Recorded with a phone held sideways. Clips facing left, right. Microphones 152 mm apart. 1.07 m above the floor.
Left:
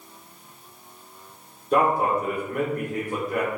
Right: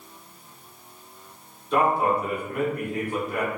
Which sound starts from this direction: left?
A man speaking, at 1.7 s.